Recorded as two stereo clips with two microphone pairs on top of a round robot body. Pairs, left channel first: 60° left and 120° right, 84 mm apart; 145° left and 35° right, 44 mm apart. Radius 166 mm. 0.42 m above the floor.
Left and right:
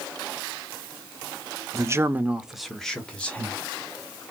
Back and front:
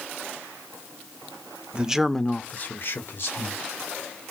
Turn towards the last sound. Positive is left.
turn(degrees=135)